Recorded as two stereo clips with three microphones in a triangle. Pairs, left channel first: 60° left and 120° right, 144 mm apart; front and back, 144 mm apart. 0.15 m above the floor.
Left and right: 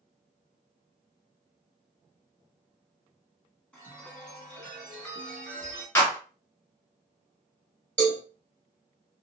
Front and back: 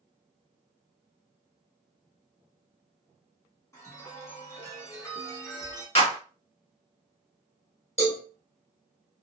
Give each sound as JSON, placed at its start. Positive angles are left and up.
{"t": 3.7, "sound": "a chime", "azimuth_deg": -5, "distance_m": 1.1}
{"t": 6.0, "sound": "a clap", "azimuth_deg": 5, "distance_m": 1.7}
{"t": 8.0, "sound": "a cowbell", "azimuth_deg": -15, "distance_m": 1.5}